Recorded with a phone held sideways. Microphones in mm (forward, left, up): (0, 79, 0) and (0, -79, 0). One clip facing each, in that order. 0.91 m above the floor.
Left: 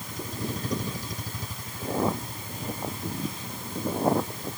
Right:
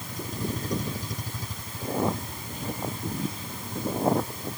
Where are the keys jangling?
I don't hear keys jangling.